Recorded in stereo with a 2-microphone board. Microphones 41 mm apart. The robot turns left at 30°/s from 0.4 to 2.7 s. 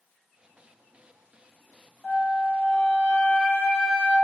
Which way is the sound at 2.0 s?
50° left (ahead or behind).